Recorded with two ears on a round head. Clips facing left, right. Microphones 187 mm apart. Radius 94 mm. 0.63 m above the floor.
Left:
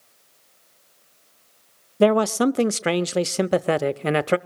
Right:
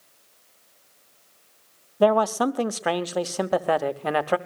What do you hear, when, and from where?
2.0 s a man speaking: 30° left (ahead or behind), 0.6 m